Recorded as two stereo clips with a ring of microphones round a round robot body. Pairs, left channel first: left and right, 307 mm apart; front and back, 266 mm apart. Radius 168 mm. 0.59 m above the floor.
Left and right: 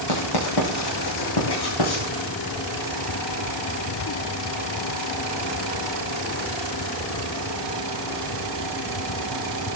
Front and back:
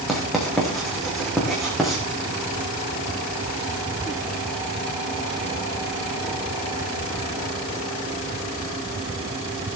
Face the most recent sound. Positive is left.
turn(degrees=90)